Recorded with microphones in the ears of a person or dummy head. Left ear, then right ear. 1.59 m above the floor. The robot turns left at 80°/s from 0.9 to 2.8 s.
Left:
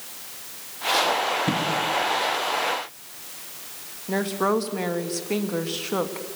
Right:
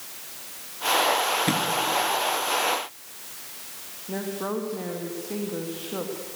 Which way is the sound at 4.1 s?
75° left (ahead or behind).